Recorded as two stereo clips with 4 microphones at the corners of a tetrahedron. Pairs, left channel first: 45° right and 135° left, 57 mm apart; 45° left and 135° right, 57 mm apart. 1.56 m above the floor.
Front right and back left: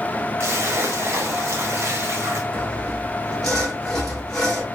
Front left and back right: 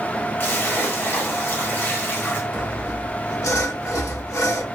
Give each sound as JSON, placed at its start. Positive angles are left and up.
{"t": 0.4, "sound": "a splash", "azimuth_deg": 95, "distance_m": 1.1}
{"t": 2.5, "sound": "sawing", "azimuth_deg": 35, "distance_m": 1.6}